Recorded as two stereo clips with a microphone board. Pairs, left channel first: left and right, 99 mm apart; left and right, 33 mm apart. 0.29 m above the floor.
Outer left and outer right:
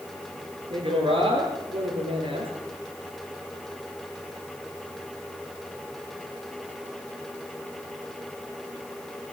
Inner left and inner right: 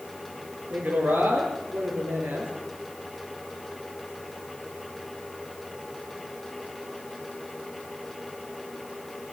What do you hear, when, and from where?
0.7 s a woman speaking: 65° right (ahead or behind), 6.5 m